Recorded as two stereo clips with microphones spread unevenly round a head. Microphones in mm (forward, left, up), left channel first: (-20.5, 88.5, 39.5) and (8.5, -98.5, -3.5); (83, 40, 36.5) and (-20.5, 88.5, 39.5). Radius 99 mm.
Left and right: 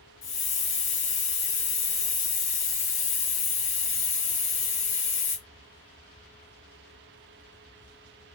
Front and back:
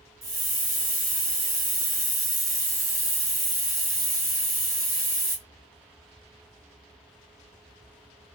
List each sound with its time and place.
0.2 s a hiss: 90° left, 1.4 m